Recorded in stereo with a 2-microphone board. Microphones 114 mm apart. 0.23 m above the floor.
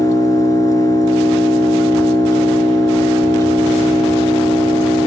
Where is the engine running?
35° left (ahead or behind), 1.1 m.